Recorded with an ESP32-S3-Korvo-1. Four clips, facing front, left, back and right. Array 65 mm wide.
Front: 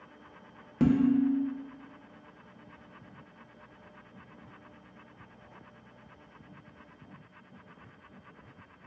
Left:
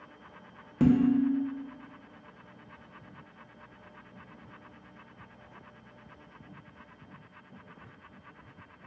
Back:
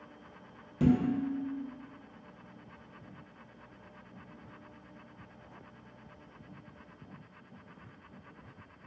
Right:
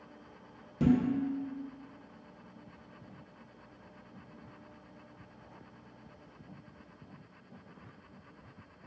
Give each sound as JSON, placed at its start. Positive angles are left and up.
{"t": 0.8, "sound": "dishes clattering", "azimuth_deg": 45, "distance_m": 0.9}